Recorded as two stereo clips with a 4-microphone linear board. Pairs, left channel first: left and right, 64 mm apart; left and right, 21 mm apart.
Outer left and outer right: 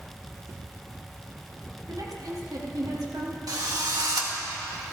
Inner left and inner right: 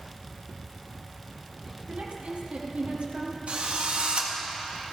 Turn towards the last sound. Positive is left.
turn(degrees=-70)  # may be behind; listen again after turning